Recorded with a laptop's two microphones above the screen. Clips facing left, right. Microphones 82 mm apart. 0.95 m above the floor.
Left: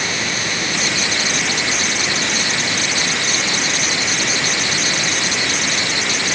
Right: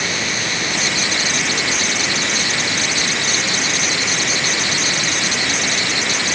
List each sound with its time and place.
Only background noise.